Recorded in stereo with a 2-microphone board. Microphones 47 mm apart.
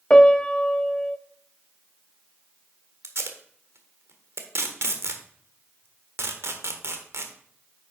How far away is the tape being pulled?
About 1.1 m.